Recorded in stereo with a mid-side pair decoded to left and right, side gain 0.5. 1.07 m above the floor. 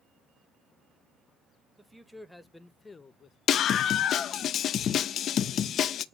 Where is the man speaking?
10° right, 1.6 m; by 3.4 s 50° left, 0.9 m.